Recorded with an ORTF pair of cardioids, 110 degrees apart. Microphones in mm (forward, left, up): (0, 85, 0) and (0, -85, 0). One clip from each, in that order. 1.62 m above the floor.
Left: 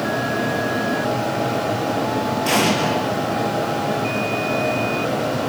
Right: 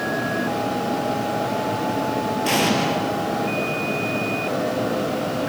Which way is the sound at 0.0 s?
15° left.